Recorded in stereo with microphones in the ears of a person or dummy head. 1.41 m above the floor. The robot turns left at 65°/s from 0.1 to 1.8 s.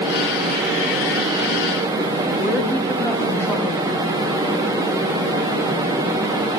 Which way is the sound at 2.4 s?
15° left (ahead or behind).